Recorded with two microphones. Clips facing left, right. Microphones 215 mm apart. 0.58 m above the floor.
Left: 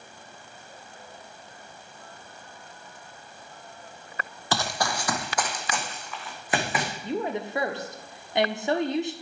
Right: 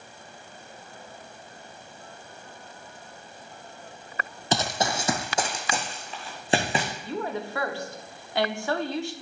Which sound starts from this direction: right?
Running footsteps, at 4.5 s.